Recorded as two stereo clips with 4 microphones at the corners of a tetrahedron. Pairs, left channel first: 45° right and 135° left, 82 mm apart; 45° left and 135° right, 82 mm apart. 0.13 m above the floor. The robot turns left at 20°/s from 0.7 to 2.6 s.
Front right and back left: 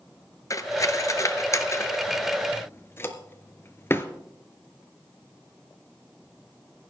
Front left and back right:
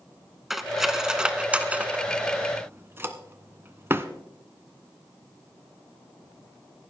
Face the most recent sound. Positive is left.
turn(degrees=-90)